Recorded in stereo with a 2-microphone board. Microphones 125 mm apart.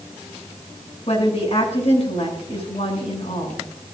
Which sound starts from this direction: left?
A woman speaking, at 1.1 s.